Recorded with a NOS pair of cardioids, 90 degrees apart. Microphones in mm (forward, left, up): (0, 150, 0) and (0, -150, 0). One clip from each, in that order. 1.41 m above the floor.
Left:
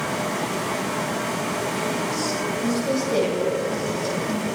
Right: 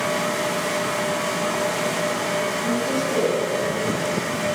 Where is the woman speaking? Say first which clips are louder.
Right 1 dB; 45° left, 8.5 m.